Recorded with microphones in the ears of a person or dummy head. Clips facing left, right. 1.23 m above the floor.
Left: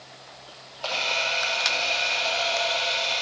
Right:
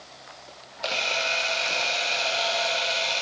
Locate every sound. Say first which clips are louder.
0.8 s a camera shutter: right 1 dB; 20° right (ahead or behind), 0.7 m